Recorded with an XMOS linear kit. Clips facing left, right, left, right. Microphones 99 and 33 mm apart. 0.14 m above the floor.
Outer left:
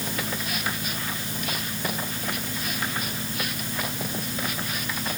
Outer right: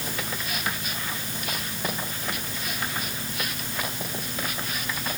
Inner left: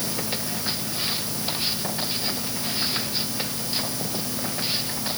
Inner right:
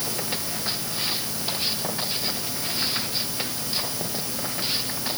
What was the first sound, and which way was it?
Only background noise.